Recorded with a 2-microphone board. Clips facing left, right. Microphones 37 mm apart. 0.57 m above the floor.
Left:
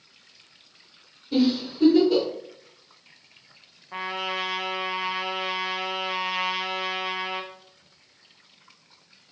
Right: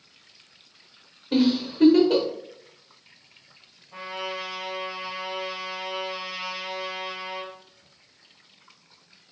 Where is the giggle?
55° right (ahead or behind), 1.1 m.